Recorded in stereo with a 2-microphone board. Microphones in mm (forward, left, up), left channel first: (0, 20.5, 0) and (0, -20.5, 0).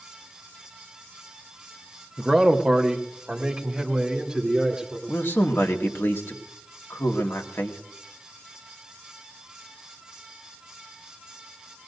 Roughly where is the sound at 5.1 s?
Left.